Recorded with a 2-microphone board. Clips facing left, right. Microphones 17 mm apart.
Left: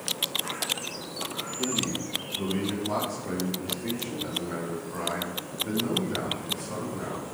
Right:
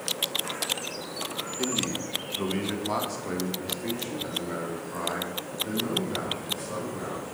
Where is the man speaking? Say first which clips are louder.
Even; 45° right (ahead or behind), 0.8 m; by 7.2 s 15° right (ahead or behind), 4 m.